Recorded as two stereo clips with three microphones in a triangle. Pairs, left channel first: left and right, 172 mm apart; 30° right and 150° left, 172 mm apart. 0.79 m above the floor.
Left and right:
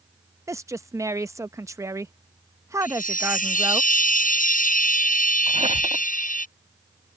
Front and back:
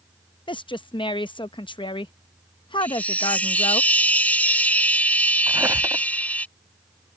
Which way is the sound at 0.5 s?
35° right.